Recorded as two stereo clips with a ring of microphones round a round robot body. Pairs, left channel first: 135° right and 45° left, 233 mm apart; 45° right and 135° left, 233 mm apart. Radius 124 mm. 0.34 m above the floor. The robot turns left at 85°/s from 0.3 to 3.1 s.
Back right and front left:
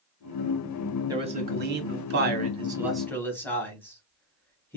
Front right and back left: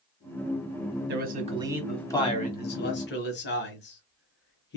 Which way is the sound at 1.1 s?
115° left.